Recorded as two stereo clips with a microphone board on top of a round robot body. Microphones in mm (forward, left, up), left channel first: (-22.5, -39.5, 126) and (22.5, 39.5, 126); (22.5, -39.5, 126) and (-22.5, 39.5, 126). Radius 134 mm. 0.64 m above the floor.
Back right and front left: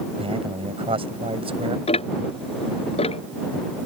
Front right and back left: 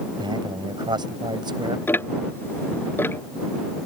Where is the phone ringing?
I don't hear a phone ringing.